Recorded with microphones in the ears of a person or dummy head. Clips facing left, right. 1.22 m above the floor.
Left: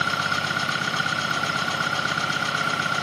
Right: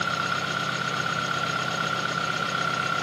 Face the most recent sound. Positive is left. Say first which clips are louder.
# left 2 dB
turn(degrees=60)  # may be behind; listen again after turning